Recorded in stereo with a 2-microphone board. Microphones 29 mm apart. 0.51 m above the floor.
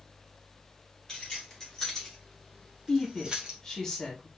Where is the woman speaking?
20° left (ahead or behind), 1.1 m.